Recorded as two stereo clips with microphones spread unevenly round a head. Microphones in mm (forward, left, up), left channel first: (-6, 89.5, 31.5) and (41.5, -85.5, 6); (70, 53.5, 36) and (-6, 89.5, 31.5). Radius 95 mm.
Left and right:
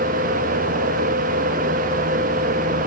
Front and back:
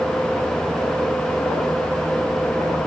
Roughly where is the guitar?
No guitar in this recording.